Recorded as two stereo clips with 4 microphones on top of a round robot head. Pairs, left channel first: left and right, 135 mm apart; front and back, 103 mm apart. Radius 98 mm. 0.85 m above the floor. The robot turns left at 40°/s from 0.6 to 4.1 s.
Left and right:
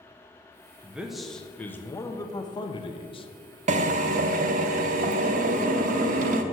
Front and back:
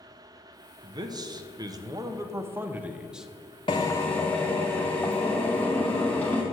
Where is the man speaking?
165° right, 0.8 m; by 3.3 s 95° left, 0.8 m.